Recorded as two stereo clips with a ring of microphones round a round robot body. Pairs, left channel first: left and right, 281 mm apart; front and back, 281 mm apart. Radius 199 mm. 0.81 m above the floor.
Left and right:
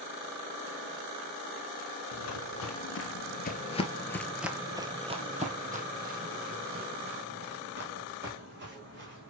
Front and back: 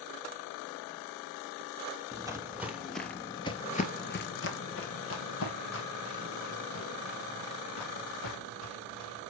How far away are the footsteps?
About 1.4 m.